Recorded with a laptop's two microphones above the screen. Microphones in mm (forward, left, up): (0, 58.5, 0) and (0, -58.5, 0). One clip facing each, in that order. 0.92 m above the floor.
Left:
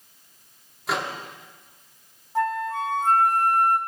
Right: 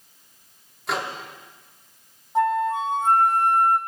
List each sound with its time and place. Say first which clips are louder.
0.9 s a microwave: even; centre (ahead or behind), 1.3 m
2.4 s a flute: right 4 dB; 20° right (ahead or behind), 0.8 m